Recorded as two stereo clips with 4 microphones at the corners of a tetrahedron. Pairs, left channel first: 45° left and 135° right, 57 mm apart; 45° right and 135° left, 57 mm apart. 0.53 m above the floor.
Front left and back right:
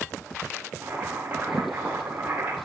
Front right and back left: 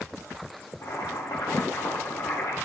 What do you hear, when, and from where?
0.8 s boiling: 75° right, 9.5 m